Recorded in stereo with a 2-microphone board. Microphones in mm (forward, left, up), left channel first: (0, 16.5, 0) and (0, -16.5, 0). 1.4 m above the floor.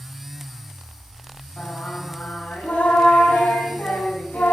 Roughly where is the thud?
No thud in this recording.